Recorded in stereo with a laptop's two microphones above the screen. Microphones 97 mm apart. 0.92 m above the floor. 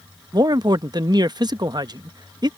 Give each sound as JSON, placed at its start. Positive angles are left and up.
{"t": 0.3, "sound": "a man speaking", "side_deg": -45}